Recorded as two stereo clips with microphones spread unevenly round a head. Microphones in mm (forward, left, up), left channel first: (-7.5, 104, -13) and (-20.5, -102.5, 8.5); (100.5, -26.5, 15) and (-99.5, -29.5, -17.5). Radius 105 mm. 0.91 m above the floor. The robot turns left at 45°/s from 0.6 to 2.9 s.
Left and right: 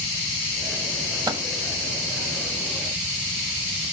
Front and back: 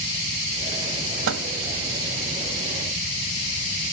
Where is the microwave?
165° right, 1.3 m; by 1.5 s 175° right, 1.3 m.